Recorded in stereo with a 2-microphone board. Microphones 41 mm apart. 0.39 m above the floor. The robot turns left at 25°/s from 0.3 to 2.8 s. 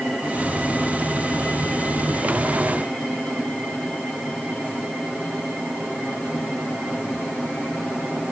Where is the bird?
I don't hear a bird.